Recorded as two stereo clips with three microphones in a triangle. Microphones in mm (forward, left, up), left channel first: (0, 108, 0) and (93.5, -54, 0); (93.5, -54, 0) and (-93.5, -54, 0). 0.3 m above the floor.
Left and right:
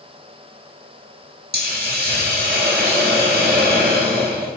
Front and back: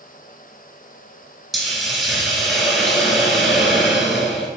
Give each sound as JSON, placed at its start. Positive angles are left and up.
{"t": 1.5, "sound": "a hiss", "azimuth_deg": -90, "distance_m": 0.8}